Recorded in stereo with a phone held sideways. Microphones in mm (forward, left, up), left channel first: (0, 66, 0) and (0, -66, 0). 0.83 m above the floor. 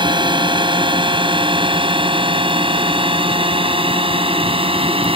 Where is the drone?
40° right (ahead or behind); by 5.2 s 45° right (ahead or behind).